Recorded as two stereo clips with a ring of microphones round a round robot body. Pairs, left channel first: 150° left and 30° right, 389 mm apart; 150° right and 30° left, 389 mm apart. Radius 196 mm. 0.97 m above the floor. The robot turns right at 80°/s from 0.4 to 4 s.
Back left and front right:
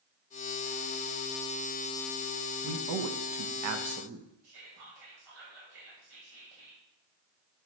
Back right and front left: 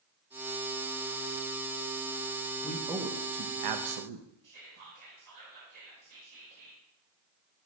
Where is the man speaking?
70° right, 0.9 m; by 4.3 s 35° left, 0.9 m.